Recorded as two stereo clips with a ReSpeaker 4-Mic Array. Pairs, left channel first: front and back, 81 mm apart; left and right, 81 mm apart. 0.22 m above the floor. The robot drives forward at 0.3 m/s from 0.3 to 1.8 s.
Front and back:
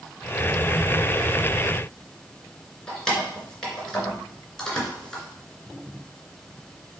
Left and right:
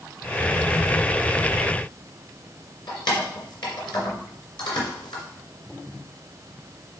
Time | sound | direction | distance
2.9 | keys jangling | 80° left | 2.5 m